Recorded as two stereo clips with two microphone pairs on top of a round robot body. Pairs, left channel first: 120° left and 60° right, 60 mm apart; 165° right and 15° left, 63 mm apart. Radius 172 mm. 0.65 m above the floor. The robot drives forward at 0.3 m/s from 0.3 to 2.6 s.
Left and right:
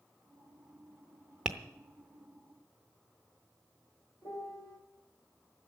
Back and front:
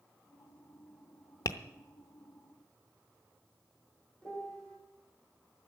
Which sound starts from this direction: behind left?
A piano, at 4.2 s.